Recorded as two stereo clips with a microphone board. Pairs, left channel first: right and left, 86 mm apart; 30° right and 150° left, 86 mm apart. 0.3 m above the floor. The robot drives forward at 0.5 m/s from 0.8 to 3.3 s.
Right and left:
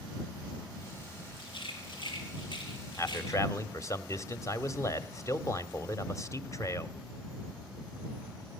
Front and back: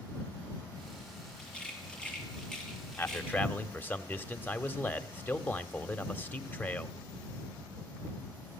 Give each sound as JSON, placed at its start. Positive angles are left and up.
{"t": 1.4, "sound": "a rattle", "azimuth_deg": -110, "distance_m": 6.0}
{"t": 3.0, "sound": "a man speaking", "azimuth_deg": -75, "distance_m": 1.3}